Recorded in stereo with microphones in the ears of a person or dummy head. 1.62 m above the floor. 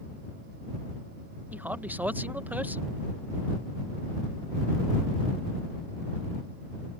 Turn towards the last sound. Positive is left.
turn(degrees=-10)  # may be behind; listen again after turning